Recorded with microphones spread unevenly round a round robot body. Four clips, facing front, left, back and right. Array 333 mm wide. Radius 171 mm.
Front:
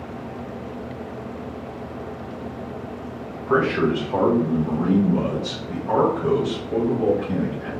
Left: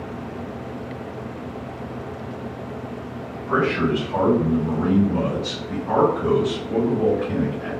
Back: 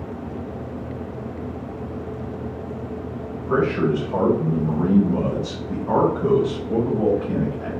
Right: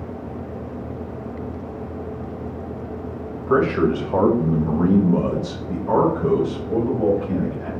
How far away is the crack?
No crack in this recording.